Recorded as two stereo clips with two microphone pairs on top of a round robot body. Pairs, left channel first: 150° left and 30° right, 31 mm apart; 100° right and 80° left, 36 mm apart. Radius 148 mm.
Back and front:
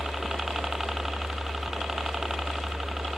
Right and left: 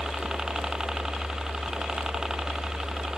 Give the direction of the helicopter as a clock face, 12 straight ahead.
11 o'clock.